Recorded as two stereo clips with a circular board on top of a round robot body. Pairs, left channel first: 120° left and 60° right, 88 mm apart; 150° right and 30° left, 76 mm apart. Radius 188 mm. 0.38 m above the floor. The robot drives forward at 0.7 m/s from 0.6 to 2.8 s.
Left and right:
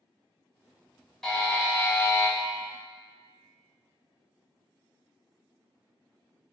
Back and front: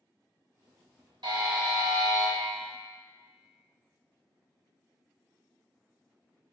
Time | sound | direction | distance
1.2 | a buzzer | 30° left | 1.4 m